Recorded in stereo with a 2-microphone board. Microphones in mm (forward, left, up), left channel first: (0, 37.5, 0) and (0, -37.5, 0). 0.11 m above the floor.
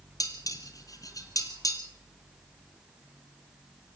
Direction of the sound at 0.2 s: 50° left (ahead or behind).